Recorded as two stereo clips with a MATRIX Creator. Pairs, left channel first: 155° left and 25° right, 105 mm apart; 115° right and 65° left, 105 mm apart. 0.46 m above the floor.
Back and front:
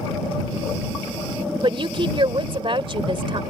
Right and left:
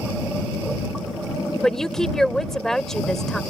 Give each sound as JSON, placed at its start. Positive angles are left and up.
{"t": 1.6, "sound": "a woman speaking", "azimuth_deg": -25}